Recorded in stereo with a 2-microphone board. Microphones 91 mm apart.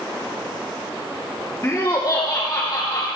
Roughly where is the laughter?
Left.